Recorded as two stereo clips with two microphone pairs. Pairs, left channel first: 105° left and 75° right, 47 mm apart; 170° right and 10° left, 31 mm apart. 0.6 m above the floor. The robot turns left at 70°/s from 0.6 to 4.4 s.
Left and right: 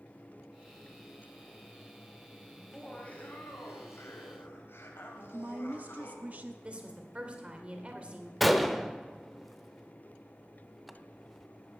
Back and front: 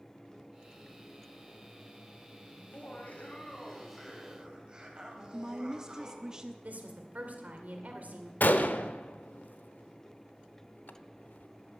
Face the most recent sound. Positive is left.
turn(degrees=-165)